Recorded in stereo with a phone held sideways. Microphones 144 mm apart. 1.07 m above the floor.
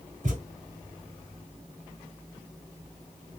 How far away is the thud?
About 1.4 m.